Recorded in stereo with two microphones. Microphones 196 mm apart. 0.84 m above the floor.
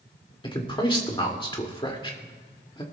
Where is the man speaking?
25° left (ahead or behind), 1.9 m.